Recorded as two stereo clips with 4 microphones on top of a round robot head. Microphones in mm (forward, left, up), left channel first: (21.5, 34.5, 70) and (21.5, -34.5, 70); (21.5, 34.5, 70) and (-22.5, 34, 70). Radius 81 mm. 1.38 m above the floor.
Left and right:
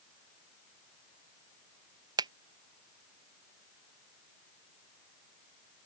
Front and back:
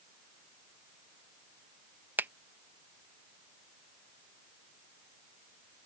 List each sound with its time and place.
2.2 s a finger snap: 125° right